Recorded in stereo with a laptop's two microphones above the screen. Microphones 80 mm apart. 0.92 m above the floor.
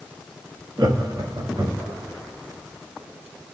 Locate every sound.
0.8 s laughter: 60° right (ahead or behind), 1.3 m; by 2.0 s 55° right (ahead or behind), 2.0 m